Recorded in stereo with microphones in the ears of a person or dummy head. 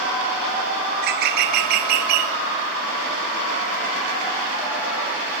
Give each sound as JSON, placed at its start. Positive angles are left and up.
{"t": 0.9, "sound": "a bird", "side_deg": -65, "distance_m": 1.2}